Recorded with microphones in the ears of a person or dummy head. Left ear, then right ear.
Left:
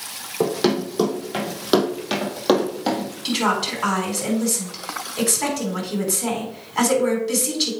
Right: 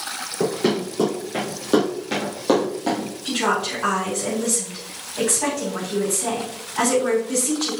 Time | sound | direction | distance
0.4 | running footsteps | 45° left (ahead or behind) | 4 m
3.2 | a woman speaking | 60° left (ahead or behind) | 4.5 m